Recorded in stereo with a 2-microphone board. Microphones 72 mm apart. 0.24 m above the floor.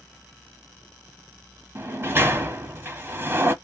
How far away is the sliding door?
About 1.0 m.